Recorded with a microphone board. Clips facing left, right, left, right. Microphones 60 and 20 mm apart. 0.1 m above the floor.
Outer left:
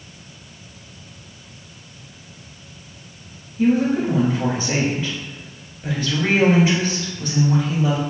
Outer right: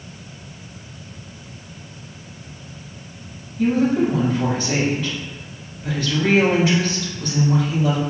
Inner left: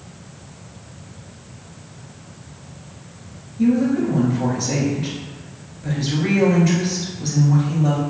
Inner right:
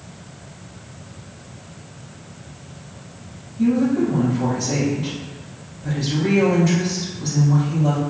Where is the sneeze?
I don't hear a sneeze.